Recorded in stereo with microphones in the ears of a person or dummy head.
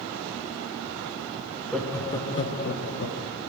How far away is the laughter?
About 0.7 m.